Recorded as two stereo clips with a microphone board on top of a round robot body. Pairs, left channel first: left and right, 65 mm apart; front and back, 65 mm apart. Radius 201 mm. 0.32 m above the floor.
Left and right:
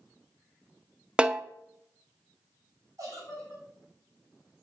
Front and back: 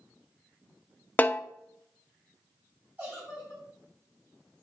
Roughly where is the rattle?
No rattle in this recording.